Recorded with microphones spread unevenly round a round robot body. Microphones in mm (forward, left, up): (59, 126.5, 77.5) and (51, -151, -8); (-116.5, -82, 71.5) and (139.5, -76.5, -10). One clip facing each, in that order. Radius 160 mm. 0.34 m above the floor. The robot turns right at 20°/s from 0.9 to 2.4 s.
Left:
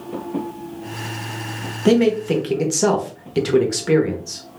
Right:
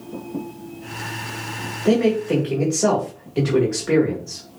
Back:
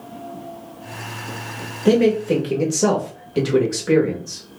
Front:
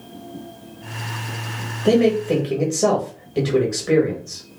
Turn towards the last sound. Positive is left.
turn(degrees=90)